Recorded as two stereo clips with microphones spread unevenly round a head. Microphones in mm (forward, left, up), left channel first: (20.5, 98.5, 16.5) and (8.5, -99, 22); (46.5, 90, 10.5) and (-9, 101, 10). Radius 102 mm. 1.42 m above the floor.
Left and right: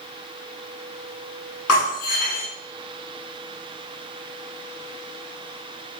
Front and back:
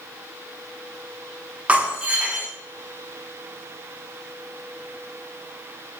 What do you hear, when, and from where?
1.7 s breaking glass: 100° left, 8 m